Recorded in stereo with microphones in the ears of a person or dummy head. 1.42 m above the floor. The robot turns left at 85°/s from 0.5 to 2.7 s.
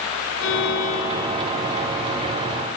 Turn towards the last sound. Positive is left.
turn(degrees=-110)